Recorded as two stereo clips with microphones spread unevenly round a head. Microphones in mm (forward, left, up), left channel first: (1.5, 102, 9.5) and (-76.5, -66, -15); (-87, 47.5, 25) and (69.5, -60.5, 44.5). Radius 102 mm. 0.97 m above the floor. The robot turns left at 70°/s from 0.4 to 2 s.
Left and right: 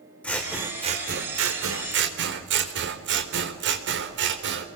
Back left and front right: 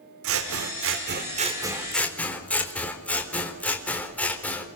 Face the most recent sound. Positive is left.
turn(degrees=-130)